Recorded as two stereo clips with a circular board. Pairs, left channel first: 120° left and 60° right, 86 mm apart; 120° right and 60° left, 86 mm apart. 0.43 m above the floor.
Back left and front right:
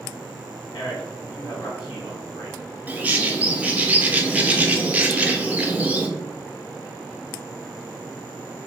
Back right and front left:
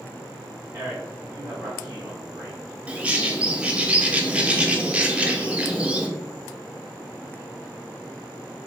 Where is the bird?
5° right, 0.6 m.